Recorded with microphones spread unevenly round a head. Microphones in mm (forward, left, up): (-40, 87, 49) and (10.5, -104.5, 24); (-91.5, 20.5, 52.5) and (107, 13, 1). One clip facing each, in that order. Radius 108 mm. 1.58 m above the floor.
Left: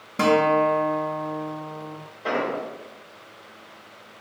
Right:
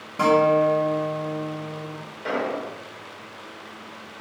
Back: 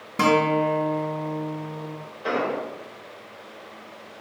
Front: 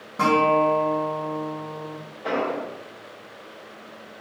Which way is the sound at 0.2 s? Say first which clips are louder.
Right 1 dB, even; 165° left.